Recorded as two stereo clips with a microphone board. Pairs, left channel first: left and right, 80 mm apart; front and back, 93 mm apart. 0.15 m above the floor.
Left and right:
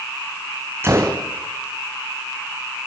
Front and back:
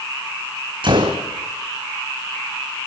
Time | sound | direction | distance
0.8 | a gunshot | 150° right | 3.5 m